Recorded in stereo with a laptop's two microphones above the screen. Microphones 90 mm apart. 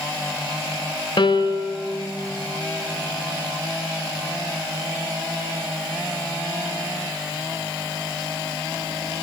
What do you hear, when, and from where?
1.2 s a piano: 65° left (ahead or behind), 1.5 m